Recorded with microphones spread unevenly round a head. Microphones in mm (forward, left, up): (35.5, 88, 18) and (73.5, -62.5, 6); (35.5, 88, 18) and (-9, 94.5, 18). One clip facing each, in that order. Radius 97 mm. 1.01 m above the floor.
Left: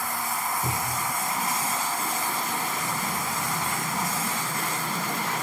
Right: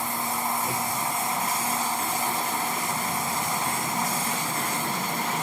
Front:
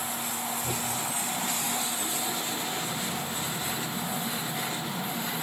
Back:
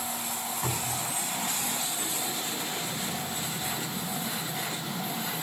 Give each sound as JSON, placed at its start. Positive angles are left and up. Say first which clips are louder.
{"t": 0.6, "sound": "a cupboard door", "louder": "right 1 dB, front 1 dB", "azimuth_deg": 135, "distance_m": 8.0}